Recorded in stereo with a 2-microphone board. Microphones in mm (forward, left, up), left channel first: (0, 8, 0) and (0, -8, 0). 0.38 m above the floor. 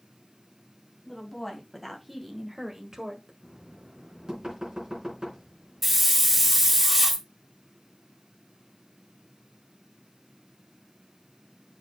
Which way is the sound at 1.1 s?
10° left (ahead or behind).